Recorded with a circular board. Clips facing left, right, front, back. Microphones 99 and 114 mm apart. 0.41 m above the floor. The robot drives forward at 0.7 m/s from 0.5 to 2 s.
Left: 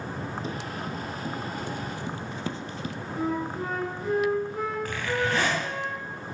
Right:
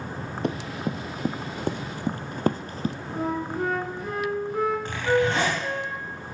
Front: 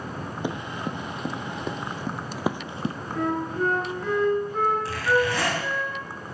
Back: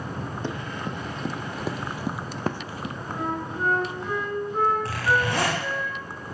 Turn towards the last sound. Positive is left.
turn(degrees=-150)